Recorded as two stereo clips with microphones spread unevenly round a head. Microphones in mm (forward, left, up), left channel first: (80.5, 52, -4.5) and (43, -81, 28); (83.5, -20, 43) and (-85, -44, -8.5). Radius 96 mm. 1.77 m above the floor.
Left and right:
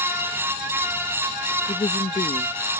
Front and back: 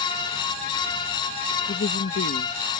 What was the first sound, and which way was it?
A woman speaking, 10° left.